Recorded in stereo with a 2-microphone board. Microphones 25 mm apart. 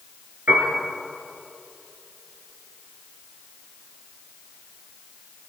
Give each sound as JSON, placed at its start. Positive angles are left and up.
{"t": 0.5, "sound": "a piano", "side_deg": -80, "distance_m": 6.5}